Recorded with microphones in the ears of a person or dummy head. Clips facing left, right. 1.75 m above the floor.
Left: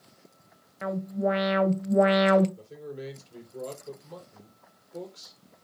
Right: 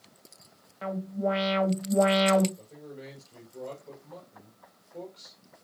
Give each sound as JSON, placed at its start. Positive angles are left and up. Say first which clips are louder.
{"t": 0.8, "sound": "an alarm", "louder": "left 2 dB", "side_deg": 30, "distance_m": 2.5}
{"t": 2.6, "sound": "a man speaking", "louder": "left 5 dB", "side_deg": 65, "distance_m": 5.0}